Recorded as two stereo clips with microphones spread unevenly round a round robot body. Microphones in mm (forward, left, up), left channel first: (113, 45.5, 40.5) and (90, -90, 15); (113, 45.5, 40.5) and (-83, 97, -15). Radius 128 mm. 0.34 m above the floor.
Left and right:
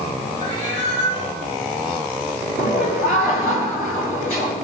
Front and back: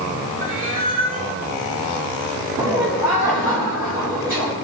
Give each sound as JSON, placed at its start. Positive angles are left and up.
{"t": 0.4, "sound": "a cat meowing", "azimuth_deg": 150, "distance_m": 5.5}
{"t": 2.6, "sound": "laughter", "azimuth_deg": 90, "distance_m": 5.0}